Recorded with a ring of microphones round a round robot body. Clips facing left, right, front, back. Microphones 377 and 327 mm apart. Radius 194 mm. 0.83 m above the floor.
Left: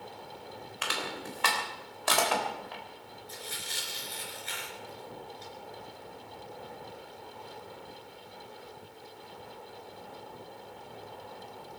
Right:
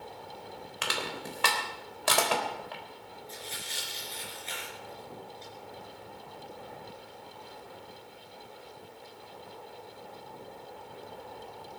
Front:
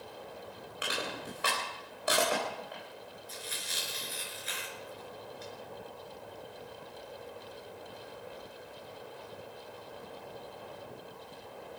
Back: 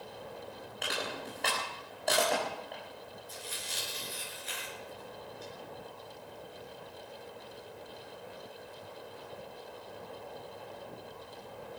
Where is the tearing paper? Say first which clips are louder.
Left 1 dB, even; 20° left, 4.5 m.